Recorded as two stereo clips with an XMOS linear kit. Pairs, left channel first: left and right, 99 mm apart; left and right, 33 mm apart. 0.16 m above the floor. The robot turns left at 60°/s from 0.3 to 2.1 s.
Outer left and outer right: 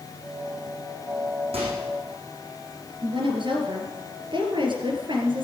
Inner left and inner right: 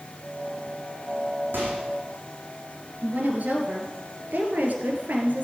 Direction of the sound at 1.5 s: 80° right.